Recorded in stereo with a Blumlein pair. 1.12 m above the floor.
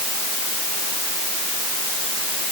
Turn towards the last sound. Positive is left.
No sound to turn to.